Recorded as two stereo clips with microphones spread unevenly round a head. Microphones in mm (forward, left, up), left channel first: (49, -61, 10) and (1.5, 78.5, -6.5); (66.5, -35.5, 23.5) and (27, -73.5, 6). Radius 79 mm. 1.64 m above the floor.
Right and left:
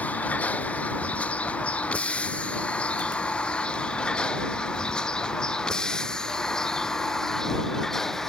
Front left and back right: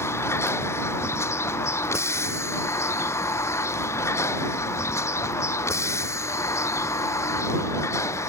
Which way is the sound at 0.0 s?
10° left.